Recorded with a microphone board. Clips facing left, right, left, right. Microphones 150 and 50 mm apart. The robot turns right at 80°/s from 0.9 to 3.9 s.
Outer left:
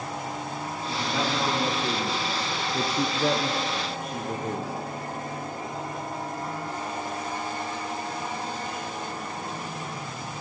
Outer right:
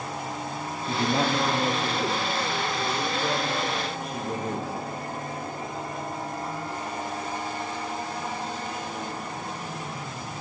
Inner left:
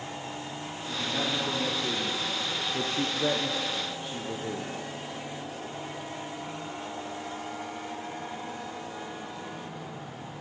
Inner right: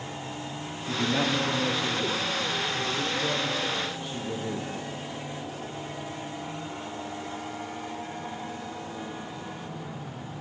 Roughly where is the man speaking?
Ahead right.